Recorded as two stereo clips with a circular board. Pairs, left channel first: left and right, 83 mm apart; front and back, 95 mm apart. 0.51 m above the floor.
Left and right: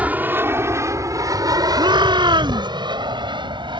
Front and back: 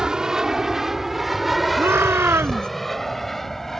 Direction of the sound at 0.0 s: 110° right.